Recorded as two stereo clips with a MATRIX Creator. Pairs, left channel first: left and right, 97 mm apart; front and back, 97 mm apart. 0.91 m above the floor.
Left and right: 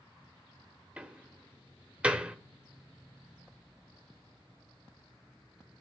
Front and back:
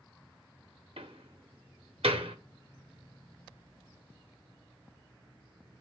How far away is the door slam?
About 1.4 m.